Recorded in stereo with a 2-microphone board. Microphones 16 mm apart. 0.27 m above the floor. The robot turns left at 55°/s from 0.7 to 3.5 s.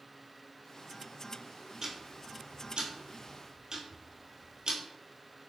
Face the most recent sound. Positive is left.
turn(degrees=-45)  # may be behind; listen again after turning